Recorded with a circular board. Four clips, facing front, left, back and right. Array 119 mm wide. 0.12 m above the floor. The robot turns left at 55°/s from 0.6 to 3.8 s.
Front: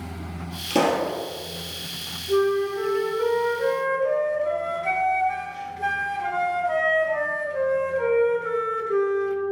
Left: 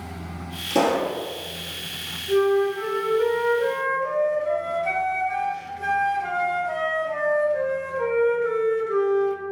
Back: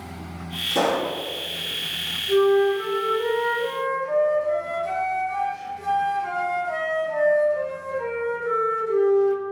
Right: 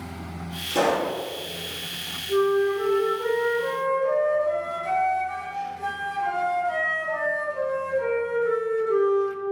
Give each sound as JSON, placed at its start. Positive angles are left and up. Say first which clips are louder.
{"t": 0.7, "sound": "a pop", "louder": "left 2 dB, front 1 dB", "azimuth_deg": 25, "distance_m": 1.5}
{"t": 2.3, "sound": "a flute", "louder": "left 1 dB, back 4 dB", "azimuth_deg": 120, "distance_m": 1.2}